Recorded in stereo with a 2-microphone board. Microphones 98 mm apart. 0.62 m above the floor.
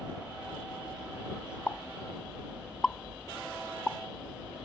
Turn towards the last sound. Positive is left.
turn(degrees=10)  # may be behind; listen again after turning